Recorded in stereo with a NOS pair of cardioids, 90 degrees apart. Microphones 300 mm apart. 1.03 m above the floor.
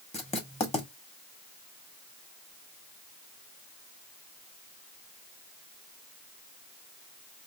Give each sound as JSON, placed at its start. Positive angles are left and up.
{"t": 0.1, "sound": "writing", "azimuth_deg": 20, "distance_m": 2.5}